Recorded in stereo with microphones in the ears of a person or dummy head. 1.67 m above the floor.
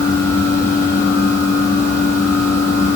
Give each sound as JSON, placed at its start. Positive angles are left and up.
{"t": 0.0, "sound": "a fan", "side_deg": 15, "distance_m": 1.8}